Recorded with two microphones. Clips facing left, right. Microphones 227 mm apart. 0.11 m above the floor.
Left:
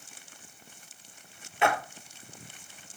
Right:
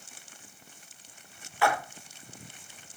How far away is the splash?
About 1.9 m.